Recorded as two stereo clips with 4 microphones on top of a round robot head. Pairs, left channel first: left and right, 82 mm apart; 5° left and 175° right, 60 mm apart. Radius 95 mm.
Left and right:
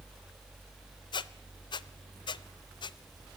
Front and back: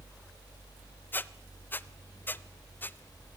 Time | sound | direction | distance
1.1 | a squeak | 65° left | 0.6 m